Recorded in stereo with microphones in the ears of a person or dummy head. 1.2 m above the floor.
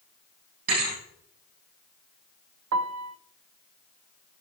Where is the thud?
45° right (ahead or behind), 8 m.